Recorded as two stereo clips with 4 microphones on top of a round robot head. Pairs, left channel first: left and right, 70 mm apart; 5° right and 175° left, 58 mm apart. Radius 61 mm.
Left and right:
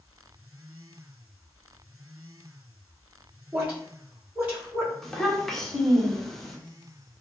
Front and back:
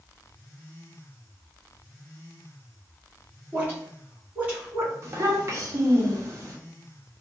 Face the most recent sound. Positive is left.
turn(degrees=175)